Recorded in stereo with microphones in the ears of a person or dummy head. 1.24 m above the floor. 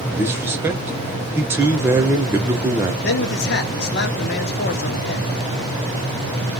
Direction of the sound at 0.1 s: 15° right (ahead or behind).